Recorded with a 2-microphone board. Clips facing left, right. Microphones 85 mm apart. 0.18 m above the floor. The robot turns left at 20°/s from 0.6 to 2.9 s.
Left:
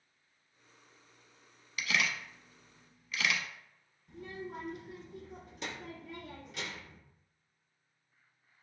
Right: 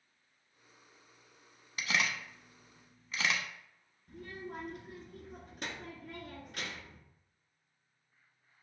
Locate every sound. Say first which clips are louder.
1.8 s a camera shutter: even; 35° right (ahead or behind), 0.6 m; by 3.4 s 30° right (ahead or behind), 0.6 m
4.1 s a child speaking: left 1 dB; 55° right (ahead or behind), 1.2 m